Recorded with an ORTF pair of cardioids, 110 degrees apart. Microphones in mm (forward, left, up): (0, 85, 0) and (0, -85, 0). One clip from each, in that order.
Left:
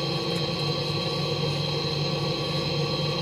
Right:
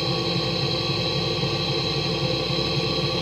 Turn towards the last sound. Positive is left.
turn(degrees=-35)